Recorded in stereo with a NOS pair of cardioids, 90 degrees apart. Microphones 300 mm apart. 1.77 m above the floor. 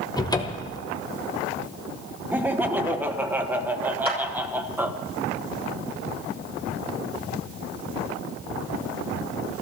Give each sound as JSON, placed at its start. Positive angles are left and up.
{"t": 0.2, "sound": "a cupboard door", "azimuth_deg": 15, "distance_m": 1.3}
{"t": 2.3, "sound": "laughter", "azimuth_deg": -5, "distance_m": 1.5}
{"t": 4.0, "sound": "a clap", "azimuth_deg": -20, "distance_m": 7.0}